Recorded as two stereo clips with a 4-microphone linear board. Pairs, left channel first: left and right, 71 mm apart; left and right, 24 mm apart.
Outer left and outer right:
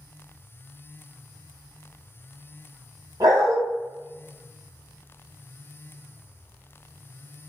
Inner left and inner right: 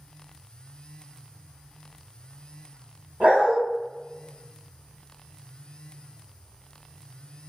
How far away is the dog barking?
About 1.3 m.